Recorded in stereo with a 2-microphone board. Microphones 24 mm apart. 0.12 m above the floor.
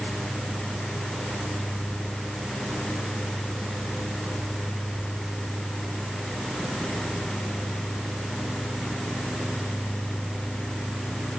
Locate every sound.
Only background noise.